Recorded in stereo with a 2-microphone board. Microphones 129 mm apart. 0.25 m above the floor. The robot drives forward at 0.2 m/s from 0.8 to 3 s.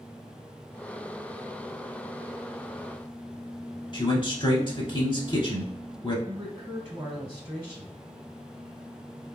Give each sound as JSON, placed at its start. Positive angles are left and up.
{"t": 3.9, "sound": "a man speaking", "side_deg": 35, "distance_m": 1.1}
{"t": 6.3, "sound": "a man speaking", "side_deg": -20, "distance_m": 1.1}